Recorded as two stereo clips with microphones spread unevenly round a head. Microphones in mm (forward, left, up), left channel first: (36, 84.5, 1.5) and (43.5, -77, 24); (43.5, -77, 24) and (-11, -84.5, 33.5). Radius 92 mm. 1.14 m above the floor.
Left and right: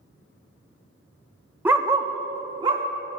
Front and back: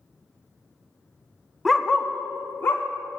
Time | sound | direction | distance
1.6 | a dog barking | 120° right | 0.6 m